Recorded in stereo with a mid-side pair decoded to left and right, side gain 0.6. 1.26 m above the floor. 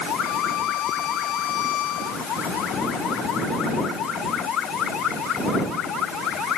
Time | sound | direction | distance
0.2 | a violin | 60° left | ?